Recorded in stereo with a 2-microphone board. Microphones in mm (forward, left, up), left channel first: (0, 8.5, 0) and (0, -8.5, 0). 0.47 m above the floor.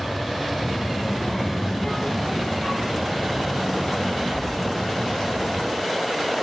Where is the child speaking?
75° left (ahead or behind), 9.5 m; by 5.6 s 65° left (ahead or behind), 6.5 m.